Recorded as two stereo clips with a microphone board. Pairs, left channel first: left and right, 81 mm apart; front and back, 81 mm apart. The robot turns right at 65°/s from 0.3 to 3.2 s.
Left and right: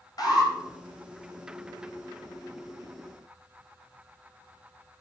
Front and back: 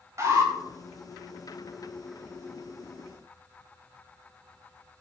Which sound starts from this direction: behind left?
An alarm, at 0.2 s.